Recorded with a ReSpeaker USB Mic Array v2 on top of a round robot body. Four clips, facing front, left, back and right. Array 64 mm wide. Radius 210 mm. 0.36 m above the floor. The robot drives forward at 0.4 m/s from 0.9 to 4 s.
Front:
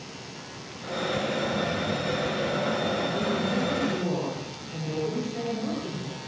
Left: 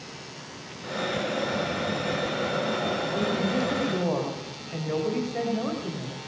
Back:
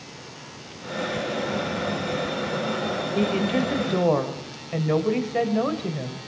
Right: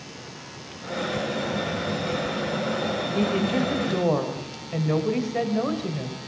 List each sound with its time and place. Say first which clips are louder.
3.1 s a woman speaking: right 4 dB, back 4 dB; 160° right, 3 m; by 6.3 s 165° right, 3 m